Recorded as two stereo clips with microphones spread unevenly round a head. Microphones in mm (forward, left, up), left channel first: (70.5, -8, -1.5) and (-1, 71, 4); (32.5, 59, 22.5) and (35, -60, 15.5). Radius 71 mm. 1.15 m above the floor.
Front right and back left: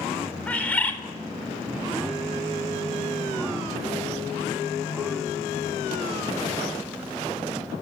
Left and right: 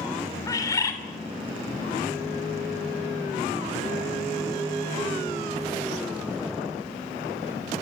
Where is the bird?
30° left, 4.5 m.